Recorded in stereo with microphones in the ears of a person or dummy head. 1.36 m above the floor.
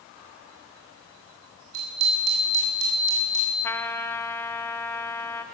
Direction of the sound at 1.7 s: 85° right.